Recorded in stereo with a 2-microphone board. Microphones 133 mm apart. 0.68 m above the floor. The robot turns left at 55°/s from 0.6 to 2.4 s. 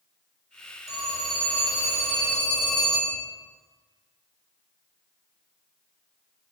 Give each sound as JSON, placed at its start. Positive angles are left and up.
{"t": 0.9, "sound": "a phone ringing", "azimuth_deg": -60, "distance_m": 1.5}